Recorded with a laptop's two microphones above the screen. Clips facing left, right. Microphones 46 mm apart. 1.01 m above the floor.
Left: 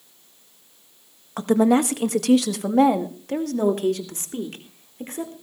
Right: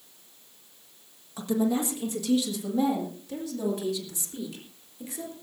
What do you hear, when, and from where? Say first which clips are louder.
1.4 s a woman speaking: left 8 dB; 50° left (ahead or behind), 1.5 m; by 5.3 s 45° left (ahead or behind), 4 m